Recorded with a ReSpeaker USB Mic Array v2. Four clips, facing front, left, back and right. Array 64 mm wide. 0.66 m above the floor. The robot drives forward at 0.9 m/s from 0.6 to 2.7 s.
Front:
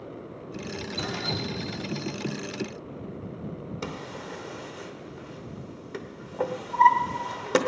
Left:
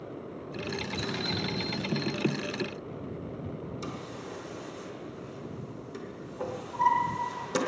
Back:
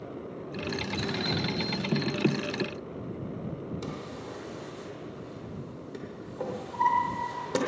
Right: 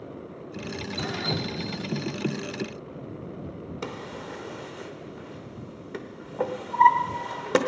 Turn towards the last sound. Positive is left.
turn(degrees=-60)